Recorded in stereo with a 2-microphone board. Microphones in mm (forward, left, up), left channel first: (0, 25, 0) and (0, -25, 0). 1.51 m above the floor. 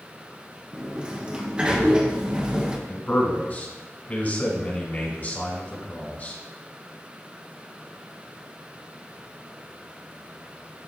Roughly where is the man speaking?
Left.